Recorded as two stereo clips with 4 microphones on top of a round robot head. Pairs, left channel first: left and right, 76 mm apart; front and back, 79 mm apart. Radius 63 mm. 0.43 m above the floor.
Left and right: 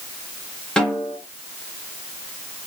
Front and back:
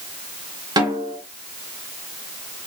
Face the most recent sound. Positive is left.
turn(degrees=170)